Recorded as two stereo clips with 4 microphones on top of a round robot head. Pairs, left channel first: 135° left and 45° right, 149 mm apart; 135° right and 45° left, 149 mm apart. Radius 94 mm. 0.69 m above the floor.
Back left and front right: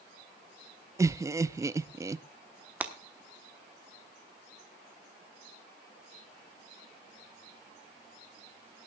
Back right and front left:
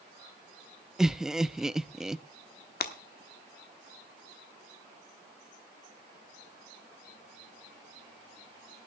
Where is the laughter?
35° right, 0.5 m.